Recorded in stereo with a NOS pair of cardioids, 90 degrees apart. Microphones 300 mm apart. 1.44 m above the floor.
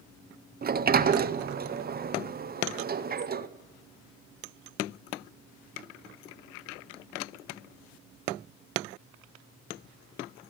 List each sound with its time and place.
0.6 s a sliding door: 30° right, 0.6 m